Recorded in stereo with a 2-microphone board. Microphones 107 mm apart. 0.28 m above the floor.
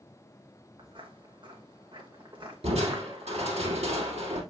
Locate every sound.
0.8 s footsteps: 50° right (ahead or behind), 2.5 m; by 3.6 s 45° right (ahead or behind), 1.0 m
2.6 s crushing: 75° right (ahead or behind), 3 m